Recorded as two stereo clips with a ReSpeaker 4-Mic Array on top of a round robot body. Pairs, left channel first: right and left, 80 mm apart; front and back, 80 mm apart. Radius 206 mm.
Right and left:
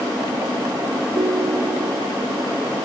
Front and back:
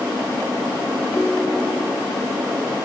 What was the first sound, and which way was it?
A ringtone, 85° left.